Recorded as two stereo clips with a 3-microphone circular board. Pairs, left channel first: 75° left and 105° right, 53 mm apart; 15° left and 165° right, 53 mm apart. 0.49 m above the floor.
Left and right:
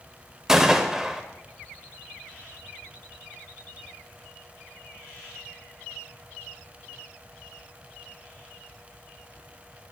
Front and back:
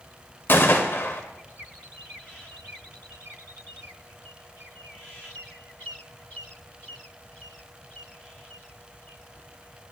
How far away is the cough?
I don't hear a cough.